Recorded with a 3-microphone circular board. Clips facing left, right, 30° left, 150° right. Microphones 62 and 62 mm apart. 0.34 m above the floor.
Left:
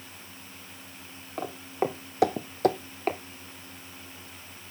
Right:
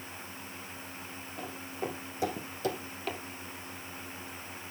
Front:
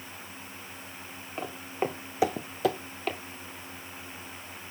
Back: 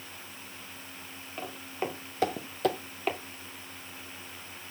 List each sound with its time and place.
1.4 s footsteps: 100° left, 1.5 m; by 3.2 s 130° left, 0.6 m